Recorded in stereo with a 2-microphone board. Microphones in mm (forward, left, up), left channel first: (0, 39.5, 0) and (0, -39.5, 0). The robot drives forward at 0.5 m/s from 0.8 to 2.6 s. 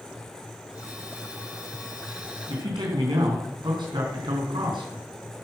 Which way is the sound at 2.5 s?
70° right (ahead or behind).